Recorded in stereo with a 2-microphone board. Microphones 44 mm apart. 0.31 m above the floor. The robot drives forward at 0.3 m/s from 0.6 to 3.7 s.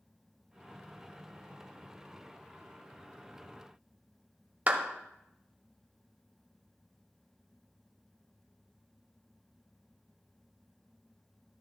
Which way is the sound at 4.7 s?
35° right (ahead or behind).